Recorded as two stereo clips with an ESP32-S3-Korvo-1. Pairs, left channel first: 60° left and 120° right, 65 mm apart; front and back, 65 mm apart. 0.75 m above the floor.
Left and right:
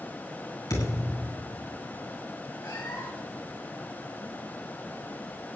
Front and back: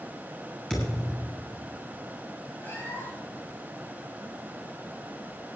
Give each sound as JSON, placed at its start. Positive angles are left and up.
{"t": 0.7, "sound": "a thud", "azimuth_deg": 80, "distance_m": 6.5}
{"t": 2.6, "sound": "a cat meowing", "azimuth_deg": 55, "distance_m": 5.0}